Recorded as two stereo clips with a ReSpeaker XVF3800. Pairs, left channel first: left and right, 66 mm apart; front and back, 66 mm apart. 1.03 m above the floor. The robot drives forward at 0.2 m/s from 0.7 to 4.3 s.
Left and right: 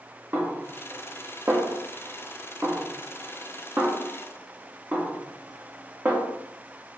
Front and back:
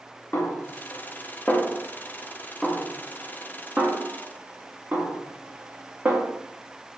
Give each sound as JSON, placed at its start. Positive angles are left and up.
{"t": 0.3, "sound": "a snare drum", "azimuth_deg": -45, "distance_m": 0.8}